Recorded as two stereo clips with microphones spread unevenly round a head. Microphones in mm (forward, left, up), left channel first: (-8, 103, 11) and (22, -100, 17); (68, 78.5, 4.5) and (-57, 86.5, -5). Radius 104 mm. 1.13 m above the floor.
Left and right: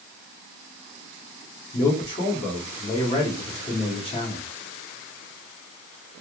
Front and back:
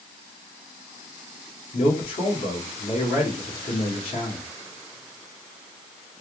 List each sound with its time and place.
1.7 s a man speaking: 35° left, 1.6 m